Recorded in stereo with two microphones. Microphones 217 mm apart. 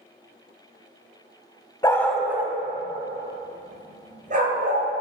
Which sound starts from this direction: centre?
A dog barking, at 1.8 s.